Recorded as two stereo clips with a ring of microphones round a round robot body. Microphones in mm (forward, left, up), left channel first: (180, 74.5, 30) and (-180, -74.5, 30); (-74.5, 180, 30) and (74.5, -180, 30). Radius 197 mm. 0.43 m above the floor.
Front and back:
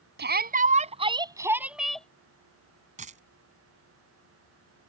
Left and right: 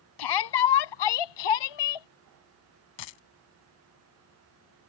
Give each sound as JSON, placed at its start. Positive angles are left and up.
{"t": 0.2, "sound": "a shout", "azimuth_deg": 140}
{"t": 3.0, "sound": "a dropped coin", "azimuth_deg": 130}